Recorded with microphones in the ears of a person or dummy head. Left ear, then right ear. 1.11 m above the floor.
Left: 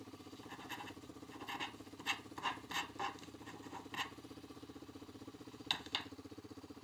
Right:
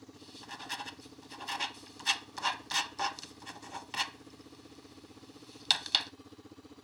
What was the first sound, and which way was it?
Writing, 40° right (ahead or behind).